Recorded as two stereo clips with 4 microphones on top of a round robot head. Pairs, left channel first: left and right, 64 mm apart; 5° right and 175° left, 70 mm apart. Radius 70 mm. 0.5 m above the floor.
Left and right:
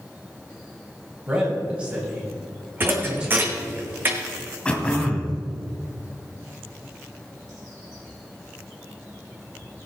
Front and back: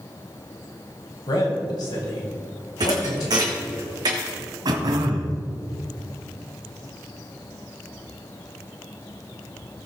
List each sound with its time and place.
1.3 s a man speaking: 15° right, 3 m
2.8 s a thud: 145° right, 2.0 m
4.7 s throat clearing: 165° left, 1.5 m